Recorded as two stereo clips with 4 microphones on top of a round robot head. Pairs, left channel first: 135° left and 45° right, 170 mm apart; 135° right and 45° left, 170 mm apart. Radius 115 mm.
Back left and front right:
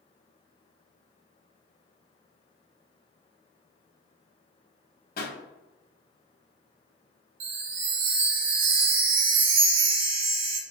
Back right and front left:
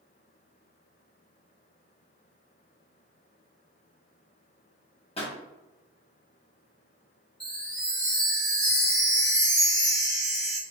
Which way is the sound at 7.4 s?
45° right.